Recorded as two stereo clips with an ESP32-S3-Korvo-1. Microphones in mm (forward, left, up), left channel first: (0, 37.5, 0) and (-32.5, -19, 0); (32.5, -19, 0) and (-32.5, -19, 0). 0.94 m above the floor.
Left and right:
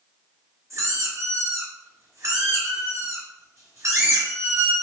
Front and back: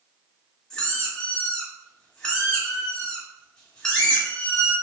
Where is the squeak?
75° right, 1.9 m.